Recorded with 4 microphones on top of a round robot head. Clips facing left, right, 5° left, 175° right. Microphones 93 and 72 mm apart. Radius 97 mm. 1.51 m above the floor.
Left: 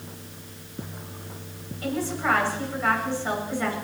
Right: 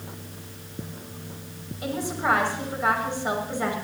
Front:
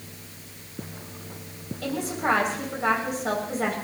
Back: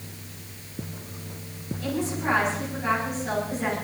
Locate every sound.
1.8 s a woman speaking: 20° right, 6.5 m